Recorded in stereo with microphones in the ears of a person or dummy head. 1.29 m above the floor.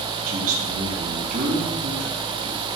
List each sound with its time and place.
0.3 s a man speaking: 45° right (ahead or behind), 2 m